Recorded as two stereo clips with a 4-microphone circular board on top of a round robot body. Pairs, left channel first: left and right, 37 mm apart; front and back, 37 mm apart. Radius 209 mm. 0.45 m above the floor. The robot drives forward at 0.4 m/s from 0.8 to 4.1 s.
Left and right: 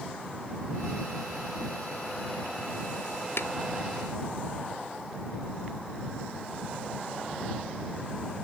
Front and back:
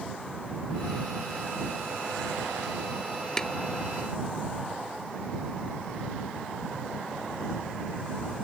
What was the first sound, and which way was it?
Tapping, 75° left.